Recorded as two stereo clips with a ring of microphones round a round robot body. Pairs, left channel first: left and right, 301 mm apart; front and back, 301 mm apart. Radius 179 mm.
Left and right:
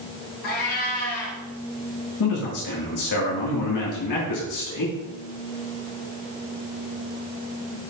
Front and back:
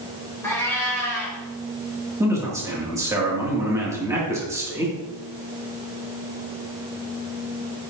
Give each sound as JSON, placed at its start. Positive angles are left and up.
{"t": 0.4, "sound": "a cat meowing", "azimuth_deg": 80, "distance_m": 2.5}
{"t": 2.2, "sound": "a man speaking", "azimuth_deg": 100, "distance_m": 2.0}